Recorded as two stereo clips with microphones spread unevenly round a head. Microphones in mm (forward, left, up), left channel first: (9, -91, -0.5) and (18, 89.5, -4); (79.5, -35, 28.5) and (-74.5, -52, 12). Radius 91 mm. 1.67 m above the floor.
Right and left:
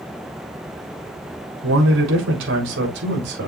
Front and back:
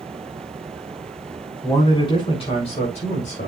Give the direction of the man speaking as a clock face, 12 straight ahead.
10 o'clock.